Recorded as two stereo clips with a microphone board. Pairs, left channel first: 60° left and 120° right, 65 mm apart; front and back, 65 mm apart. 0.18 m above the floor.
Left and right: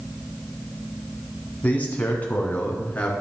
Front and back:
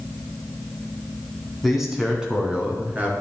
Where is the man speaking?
90° left, 1.8 m; by 3.1 s 120° left, 3 m.